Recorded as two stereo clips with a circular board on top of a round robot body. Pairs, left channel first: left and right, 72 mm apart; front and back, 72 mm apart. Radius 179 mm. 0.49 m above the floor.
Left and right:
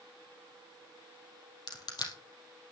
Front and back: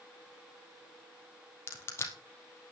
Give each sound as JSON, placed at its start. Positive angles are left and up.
{"t": 1.7, "sound": "crushing", "azimuth_deg": 60, "distance_m": 3.0}